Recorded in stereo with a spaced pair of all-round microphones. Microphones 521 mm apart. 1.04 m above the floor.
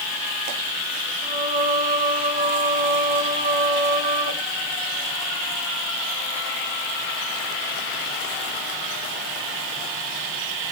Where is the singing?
50° left (ahead or behind), 4 m.